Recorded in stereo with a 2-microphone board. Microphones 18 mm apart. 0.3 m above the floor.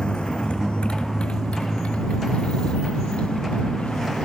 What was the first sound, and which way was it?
A motorcycle, 60° left (ahead or behind).